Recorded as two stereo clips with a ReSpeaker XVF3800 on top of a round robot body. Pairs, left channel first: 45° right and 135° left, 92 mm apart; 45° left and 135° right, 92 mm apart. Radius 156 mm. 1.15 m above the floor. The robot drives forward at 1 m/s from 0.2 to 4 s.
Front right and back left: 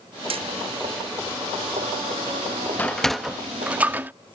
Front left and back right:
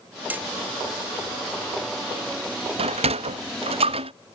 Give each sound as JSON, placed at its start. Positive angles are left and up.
{"t": 0.3, "sound": "hammering", "azimuth_deg": 150}
{"t": 2.8, "sound": "a sliding door", "azimuth_deg": -120}